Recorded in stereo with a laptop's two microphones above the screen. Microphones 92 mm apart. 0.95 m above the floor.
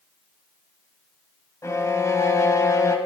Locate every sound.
1.6 s a violin: 35° left (ahead or behind), 0.9 m